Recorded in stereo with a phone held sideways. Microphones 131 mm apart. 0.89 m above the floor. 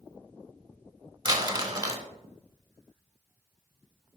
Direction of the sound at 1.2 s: 30° right (ahead or behind).